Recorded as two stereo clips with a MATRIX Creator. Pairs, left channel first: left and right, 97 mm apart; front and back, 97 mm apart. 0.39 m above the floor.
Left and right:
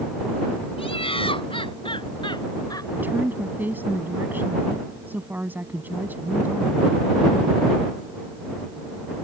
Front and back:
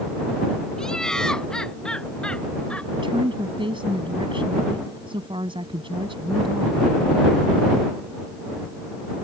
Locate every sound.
0.8 s laughter: 85° left; by 2.9 s 70° left
2.9 s a woman speaking: 160° right